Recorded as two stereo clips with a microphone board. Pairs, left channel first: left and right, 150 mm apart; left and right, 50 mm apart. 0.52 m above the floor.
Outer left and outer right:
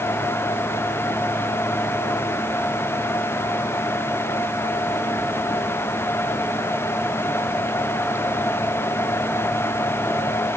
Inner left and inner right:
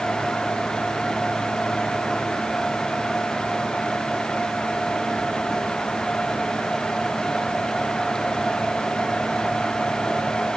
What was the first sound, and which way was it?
Only background noise.